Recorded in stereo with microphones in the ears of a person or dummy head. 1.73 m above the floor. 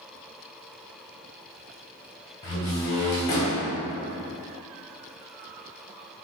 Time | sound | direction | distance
2.4 | a door slam | 20° left (ahead or behind) | 1.0 m